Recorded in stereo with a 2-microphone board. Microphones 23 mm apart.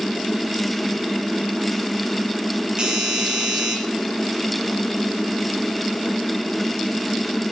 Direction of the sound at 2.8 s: 45° right (ahead or behind).